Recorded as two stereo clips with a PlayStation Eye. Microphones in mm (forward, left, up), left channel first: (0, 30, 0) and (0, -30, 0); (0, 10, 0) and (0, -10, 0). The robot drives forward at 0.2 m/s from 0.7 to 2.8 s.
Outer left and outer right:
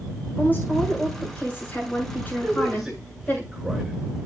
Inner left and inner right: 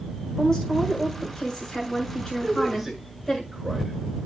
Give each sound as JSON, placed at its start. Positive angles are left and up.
{"t": 0.4, "sound": "a woman speaking", "side_deg": 25, "distance_m": 8.0}
{"t": 2.4, "sound": "a man speaking", "side_deg": -5, "distance_m": 7.0}